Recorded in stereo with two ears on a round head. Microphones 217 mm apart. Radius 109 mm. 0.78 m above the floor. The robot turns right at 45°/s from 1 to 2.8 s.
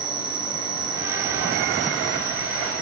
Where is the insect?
155° right, 0.9 m; by 2.8 s 75° right, 0.9 m.